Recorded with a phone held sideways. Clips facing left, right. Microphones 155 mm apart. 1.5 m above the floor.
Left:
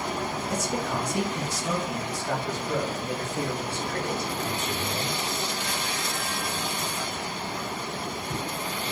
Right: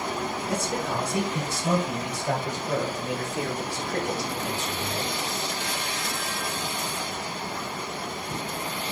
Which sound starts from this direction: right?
A man speaking, at 0.5 s.